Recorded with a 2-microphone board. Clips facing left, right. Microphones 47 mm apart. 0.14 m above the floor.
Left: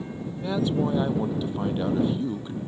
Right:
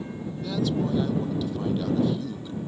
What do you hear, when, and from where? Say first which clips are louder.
0.3 s a man speaking: left 2 dB; 25° left (ahead or behind)